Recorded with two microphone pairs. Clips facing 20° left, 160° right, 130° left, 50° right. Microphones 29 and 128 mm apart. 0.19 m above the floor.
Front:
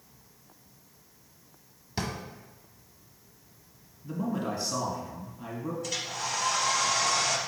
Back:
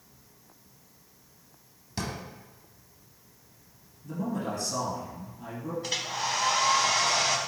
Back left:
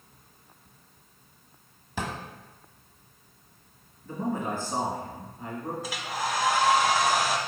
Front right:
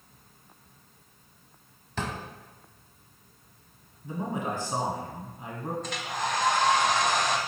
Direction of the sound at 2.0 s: 70° left.